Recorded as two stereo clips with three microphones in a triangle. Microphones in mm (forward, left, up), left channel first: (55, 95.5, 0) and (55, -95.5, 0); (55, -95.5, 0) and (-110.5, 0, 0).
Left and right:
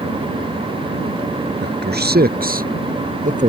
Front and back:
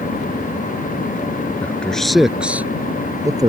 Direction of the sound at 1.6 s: 110° right.